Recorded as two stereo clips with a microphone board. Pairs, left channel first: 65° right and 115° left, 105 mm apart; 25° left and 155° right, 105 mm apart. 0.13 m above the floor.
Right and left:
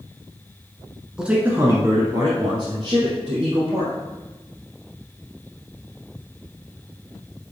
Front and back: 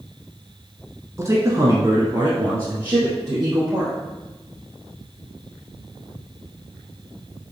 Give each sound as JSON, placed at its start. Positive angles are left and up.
{"t": 1.2, "sound": "a man speaking", "azimuth_deg": -170, "distance_m": 1.1}